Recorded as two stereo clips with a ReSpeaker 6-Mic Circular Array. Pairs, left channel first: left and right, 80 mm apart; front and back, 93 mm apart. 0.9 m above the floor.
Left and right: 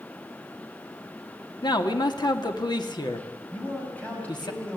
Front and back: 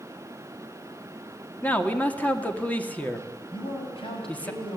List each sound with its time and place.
1.6 s a man speaking: 70° left, 2 m
3.5 s a man speaking: 20° left, 6 m